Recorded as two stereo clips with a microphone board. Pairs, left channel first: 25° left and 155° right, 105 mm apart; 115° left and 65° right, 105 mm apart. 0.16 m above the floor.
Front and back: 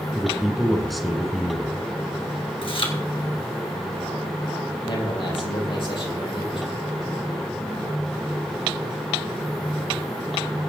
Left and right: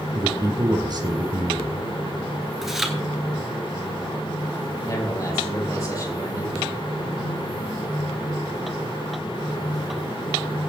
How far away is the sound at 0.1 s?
About 1.9 m.